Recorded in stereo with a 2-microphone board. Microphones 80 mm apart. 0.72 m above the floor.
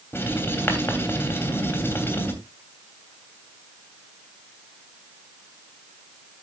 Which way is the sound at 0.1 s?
30° left (ahead or behind).